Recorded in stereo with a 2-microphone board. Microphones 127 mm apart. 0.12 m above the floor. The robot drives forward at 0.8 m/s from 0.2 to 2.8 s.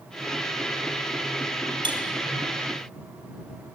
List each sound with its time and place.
1.8 s cutlery clinking: 40° right (ahead or behind), 1.4 m